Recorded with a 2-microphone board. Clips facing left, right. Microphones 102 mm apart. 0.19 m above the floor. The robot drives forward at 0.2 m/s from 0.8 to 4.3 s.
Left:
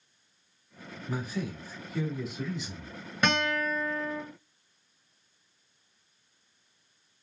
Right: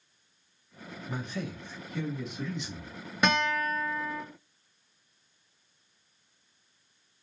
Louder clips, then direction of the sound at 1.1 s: Left 2 dB; centre (ahead or behind).